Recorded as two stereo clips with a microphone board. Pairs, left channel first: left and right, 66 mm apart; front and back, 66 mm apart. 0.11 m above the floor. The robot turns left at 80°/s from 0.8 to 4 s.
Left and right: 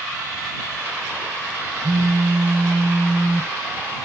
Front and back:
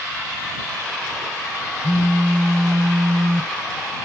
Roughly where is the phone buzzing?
Right.